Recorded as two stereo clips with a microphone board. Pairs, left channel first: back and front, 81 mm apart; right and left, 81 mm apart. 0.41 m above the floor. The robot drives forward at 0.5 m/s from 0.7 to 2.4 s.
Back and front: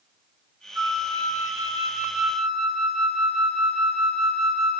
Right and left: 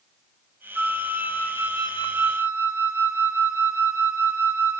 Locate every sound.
0.8 s a flute: 20° left, 0.9 m; by 4.8 s 100° left, 0.5 m